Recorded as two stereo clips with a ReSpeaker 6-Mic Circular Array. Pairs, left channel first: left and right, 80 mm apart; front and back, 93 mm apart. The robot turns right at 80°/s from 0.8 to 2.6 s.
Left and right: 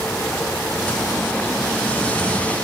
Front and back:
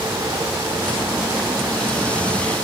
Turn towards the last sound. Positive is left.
No sound to turn to.